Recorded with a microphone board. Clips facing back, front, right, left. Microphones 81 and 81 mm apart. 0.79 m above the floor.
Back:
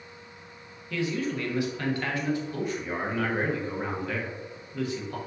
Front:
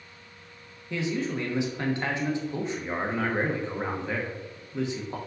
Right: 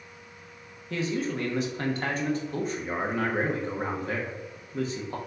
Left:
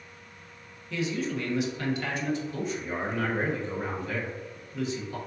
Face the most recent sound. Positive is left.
turn(degrees=-60)